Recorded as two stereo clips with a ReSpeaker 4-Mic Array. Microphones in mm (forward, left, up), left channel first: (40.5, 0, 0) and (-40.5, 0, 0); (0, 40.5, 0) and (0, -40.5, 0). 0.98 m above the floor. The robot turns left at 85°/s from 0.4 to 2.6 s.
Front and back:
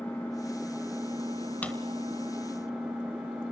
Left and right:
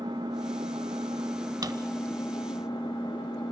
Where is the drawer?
70° right, 1.2 m; by 1.7 s 75° right, 1.2 m.